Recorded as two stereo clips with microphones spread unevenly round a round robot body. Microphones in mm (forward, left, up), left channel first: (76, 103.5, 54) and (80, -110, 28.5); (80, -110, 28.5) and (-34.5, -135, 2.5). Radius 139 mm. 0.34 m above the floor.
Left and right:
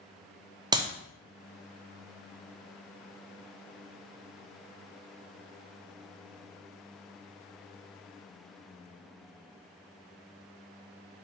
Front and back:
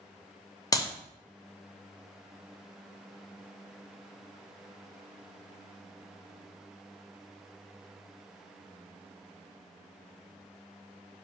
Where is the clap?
45° right, 0.8 m.